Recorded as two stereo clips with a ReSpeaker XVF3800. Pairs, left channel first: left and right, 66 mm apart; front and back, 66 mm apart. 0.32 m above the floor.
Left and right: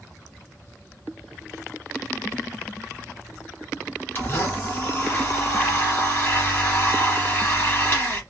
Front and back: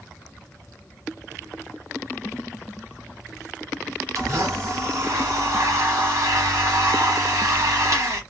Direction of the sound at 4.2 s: 145° left.